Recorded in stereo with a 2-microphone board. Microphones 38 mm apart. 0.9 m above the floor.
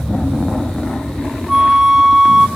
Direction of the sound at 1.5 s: 10° right (ahead or behind).